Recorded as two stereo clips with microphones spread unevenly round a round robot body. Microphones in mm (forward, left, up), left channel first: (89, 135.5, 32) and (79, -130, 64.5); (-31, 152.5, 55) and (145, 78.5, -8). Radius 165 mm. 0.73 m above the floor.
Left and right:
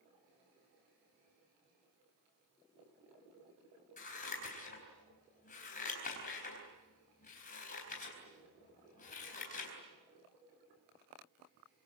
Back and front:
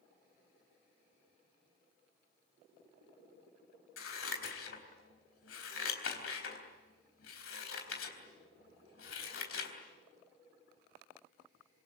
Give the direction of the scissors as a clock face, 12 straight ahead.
7 o'clock.